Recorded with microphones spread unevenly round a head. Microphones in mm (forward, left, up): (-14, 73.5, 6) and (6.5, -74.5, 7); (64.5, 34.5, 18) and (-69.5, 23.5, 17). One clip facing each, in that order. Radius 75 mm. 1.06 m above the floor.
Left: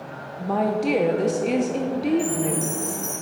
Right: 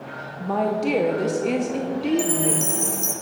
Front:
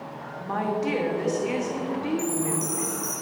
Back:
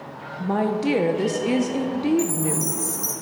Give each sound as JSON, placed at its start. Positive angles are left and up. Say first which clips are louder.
{"t": 0.4, "sound": "a woman speaking", "louder": "even, back 4 dB", "azimuth_deg": -175, "distance_m": 0.6}
{"t": 2.2, "sound": "a chime", "louder": "right 1 dB, back 3 dB", "azimuth_deg": -115, "distance_m": 1.2}